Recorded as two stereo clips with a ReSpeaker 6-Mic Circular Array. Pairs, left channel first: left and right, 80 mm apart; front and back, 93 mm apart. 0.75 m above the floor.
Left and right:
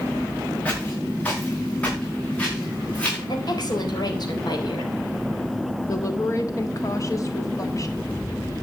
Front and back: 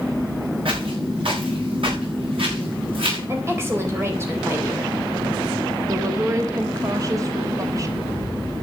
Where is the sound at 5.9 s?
130° left, 1.2 m.